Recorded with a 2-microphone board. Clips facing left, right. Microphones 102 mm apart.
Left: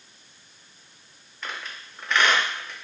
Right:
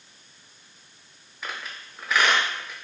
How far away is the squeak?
About 0.7 m.